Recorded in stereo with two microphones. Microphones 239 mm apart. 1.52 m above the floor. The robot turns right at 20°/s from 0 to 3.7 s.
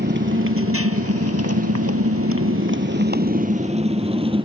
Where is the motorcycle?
45° right (ahead or behind); by 4.5 s 20° right (ahead or behind).